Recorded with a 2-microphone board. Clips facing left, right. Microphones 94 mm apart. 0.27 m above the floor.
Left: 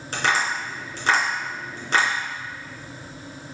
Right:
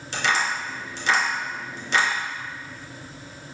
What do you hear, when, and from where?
0.1 s tapping: 45° left (ahead or behind), 3 m